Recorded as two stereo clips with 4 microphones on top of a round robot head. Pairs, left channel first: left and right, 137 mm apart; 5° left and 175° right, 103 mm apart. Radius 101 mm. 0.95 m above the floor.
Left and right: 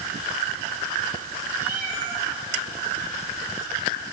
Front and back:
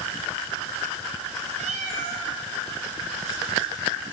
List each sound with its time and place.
1.6 s a cat meowing: 170° right, 4 m